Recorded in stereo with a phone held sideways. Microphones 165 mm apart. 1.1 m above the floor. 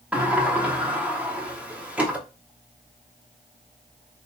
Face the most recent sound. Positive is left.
turn(degrees=-10)  # may be behind; listen again after turning